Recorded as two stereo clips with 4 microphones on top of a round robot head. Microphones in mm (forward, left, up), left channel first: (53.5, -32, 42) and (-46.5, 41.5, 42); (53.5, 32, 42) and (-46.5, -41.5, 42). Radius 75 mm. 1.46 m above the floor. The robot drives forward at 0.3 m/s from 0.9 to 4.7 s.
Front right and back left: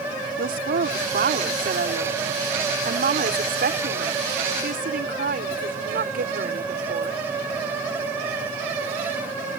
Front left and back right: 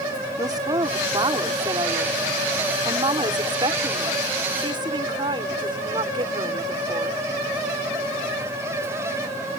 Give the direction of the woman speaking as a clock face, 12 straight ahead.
7 o'clock.